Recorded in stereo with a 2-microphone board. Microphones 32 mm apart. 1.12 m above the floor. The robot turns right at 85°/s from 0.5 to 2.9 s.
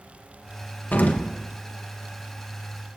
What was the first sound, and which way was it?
An explosion, 95° left.